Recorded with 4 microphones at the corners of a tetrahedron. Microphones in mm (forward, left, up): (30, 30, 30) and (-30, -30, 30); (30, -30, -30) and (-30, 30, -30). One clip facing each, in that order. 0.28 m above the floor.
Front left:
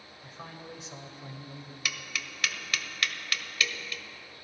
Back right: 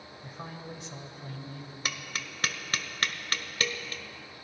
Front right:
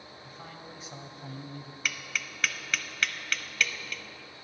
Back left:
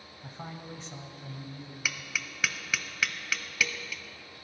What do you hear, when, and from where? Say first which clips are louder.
0.2 s a man speaking: back right 2 dB, back left 5 dB; 155° left, 1.2 m; by 1.8 s 30° right, 1.7 m
1.9 s tapping: even, even; 145° right, 0.8 m